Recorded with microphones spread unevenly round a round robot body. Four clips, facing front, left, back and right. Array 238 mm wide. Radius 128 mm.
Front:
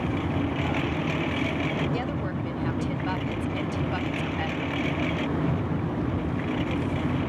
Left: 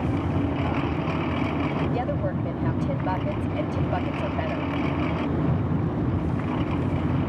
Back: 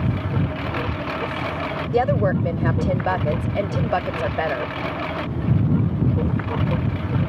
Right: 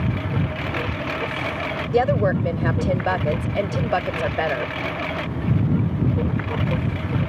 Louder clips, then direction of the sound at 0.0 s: Even, back 2 dB; 145° right.